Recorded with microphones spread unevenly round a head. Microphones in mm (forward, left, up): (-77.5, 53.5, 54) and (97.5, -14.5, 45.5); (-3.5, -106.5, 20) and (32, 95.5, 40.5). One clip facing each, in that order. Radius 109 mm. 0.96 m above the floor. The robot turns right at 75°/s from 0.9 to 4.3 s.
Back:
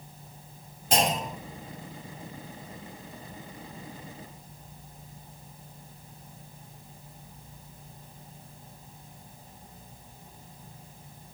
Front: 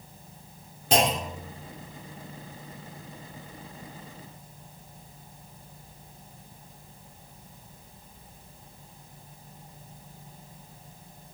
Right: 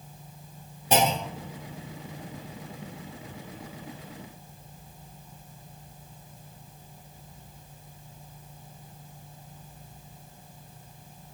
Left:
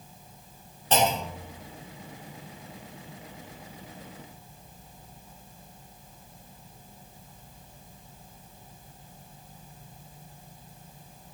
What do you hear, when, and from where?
0.9 s a clunk: 20° right, 3.5 m; by 1.5 s 25° left, 3.5 m